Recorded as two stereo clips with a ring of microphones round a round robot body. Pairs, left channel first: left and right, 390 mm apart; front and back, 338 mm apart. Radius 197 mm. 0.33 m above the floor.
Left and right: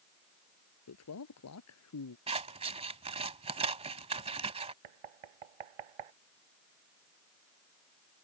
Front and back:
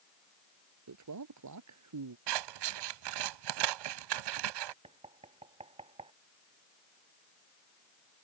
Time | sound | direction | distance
0.9 | a man speaking | 145° left | ?
2.3 | scissors | 165° right | ?
4.8 | knocking | 105° right | ?